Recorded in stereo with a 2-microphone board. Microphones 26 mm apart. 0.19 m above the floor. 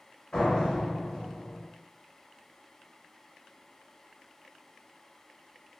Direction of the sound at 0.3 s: 45° left (ahead or behind).